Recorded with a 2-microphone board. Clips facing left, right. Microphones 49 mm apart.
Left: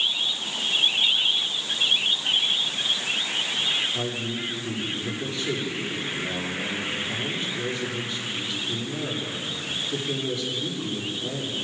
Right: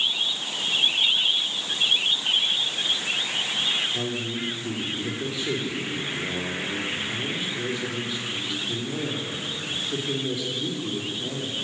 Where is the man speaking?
5° right (ahead or behind), 7.5 m.